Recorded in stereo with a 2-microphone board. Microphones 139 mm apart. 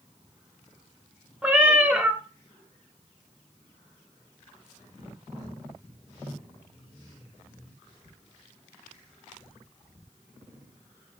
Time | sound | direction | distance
1.4 | a cat meowing | 10° right (ahead or behind) | 0.6 m